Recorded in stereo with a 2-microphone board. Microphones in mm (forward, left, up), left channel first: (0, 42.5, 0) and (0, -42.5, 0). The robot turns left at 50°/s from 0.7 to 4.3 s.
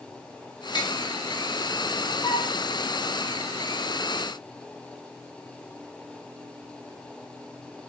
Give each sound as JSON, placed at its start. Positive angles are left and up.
{"t": 0.8, "sound": "tapping", "side_deg": 55, "distance_m": 0.8}
{"t": 2.2, "sound": "a flute", "side_deg": 50, "distance_m": 0.9}